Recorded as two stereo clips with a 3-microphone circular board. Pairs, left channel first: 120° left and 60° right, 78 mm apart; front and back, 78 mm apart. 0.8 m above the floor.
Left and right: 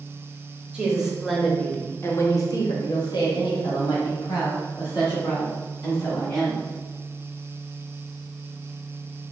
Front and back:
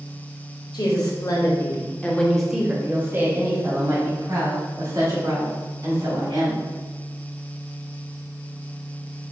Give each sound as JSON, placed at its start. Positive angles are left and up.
{"t": 0.7, "sound": "a woman speaking", "azimuth_deg": 15, "distance_m": 1.3}